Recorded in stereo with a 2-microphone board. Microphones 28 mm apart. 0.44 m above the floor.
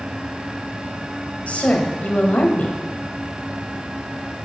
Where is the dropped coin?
No dropped coin in this recording.